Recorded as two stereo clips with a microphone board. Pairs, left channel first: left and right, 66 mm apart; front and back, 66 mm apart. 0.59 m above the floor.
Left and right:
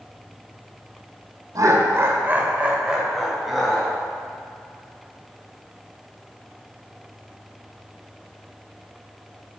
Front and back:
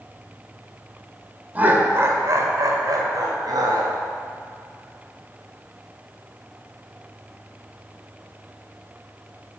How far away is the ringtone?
I don't hear a ringtone.